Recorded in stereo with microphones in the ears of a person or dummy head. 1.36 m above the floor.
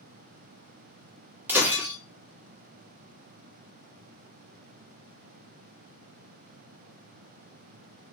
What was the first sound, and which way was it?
Breaking glass, 15° right (ahead or behind).